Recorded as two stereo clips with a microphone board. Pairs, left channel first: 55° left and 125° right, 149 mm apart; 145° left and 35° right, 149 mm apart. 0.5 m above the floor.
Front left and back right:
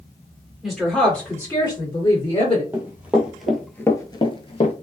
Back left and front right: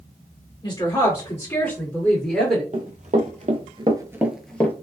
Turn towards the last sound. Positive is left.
turn(degrees=75)